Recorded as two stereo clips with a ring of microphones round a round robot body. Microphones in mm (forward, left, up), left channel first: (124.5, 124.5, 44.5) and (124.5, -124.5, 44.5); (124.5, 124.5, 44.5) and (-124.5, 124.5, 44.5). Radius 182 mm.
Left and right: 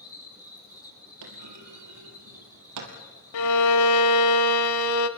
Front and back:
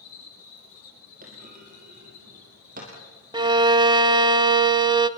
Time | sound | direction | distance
0.0 | an insect | 15° left | 6.5 m
1.2 | a clunk | 115° right | 3 m
3.3 | a violin | 105° left | 0.8 m